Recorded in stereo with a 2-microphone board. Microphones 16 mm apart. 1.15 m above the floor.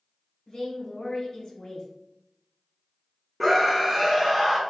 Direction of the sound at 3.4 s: 10° right (ahead or behind).